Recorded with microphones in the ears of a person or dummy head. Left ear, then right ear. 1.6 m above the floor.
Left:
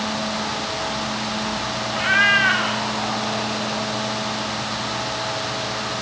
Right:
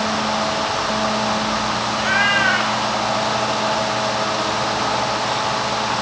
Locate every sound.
1.9 s a cat meowing: 10° left (ahead or behind), 1.3 m; by 3.8 s 5° right (ahead or behind), 2.5 m